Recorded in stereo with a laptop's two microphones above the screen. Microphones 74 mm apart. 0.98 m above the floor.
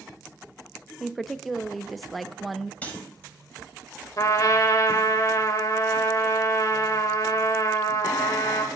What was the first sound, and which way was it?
A woman speaking, centre (ahead or behind).